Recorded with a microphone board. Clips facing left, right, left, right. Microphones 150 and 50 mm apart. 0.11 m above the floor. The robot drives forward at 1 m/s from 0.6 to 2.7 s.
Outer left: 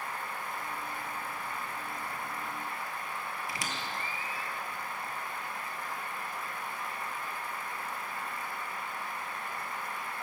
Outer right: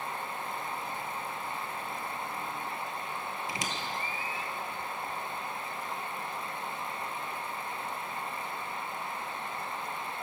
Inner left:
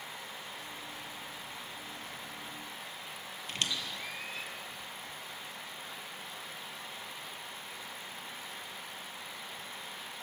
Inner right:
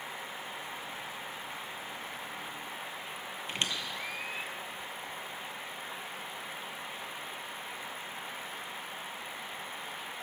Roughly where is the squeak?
Right.